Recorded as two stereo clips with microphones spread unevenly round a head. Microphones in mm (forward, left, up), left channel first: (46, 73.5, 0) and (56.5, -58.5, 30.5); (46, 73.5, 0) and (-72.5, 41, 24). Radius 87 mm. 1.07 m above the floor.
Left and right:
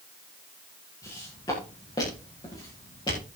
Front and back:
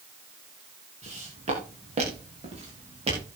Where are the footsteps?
165° left, 9 m; by 3.2 s 160° left, 11 m.